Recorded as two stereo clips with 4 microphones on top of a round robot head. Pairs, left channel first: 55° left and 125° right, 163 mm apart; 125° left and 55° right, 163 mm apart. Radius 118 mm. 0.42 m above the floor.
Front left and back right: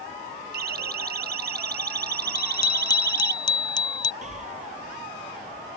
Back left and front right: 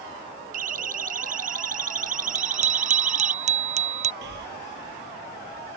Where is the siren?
95° right; by 3.4 s 100° right.